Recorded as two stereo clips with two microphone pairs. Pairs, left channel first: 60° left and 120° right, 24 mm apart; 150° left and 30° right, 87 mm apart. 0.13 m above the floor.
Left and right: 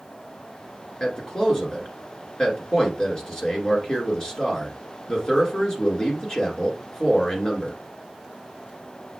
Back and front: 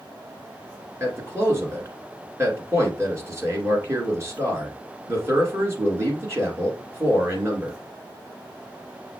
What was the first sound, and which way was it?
A man speaking, 10° left.